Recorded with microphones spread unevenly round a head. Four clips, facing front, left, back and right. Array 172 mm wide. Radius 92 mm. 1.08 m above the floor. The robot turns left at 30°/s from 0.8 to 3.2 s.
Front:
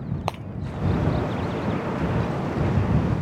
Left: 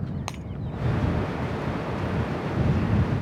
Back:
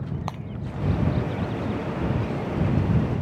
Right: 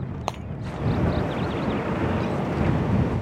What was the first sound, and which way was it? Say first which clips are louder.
Breaking glass: right 6 dB, front 5 dB; 30° right.